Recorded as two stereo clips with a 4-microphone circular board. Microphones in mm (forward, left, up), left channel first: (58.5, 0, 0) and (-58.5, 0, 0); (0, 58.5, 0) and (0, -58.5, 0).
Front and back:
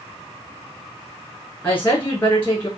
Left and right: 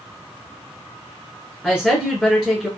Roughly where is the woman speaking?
Ahead left.